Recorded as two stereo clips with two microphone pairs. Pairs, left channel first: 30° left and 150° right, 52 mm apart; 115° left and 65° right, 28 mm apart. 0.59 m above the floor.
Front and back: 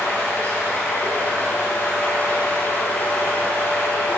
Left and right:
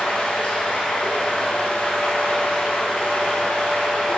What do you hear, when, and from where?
0.0 s running water: 85° left, 3 m